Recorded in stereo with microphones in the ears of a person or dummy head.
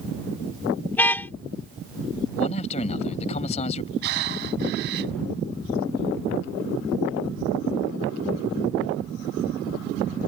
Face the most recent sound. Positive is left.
turn(degrees=-55)  # may be behind; listen again after turning